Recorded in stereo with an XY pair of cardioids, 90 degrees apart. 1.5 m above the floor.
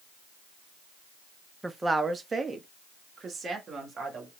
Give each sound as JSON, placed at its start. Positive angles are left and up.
{"t": 1.6, "sound": "a woman speaking", "azimuth_deg": -15, "distance_m": 0.7}